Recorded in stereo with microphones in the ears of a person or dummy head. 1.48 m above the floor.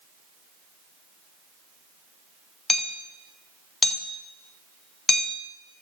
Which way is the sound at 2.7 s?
Centre (ahead or behind).